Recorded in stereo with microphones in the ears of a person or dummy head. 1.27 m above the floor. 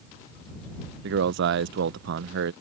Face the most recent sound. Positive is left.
turn(degrees=-60)  # may be behind; listen again after turning